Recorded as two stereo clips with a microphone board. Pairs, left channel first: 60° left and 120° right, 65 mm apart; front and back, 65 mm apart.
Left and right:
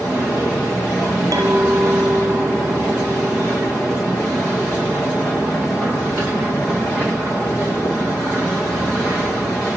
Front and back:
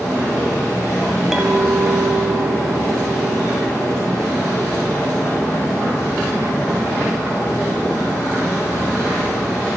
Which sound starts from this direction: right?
A clink, at 1.3 s.